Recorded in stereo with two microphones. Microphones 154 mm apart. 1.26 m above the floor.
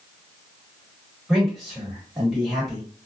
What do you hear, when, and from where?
1.3 s a man speaking: centre (ahead or behind), 1.8 m